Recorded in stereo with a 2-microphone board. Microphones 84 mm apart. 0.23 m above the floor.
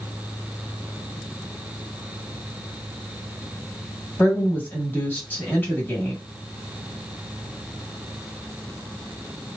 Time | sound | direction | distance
4.2 | a woman speaking | 25° left (ahead or behind) | 1.4 m